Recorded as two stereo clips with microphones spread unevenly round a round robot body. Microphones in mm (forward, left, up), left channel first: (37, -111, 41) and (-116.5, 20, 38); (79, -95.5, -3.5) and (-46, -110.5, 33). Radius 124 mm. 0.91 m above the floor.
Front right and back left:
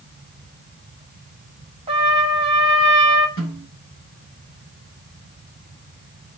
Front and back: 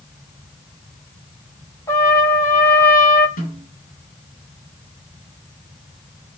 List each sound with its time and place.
1.9 s a trumpet: 75° left, 1.1 m
3.4 s a snare drum: 15° left, 8.5 m